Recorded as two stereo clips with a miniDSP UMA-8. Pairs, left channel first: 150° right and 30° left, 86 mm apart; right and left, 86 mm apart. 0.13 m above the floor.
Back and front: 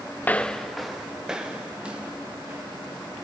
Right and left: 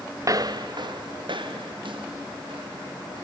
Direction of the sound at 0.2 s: 145° left.